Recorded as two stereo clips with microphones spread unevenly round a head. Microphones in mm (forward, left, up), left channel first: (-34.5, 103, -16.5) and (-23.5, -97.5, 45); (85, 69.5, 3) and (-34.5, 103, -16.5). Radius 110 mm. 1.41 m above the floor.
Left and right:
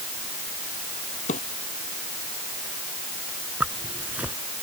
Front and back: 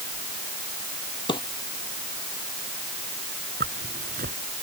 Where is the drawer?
30° left.